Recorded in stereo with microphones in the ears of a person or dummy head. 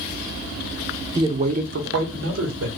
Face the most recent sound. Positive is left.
turn(degrees=-80)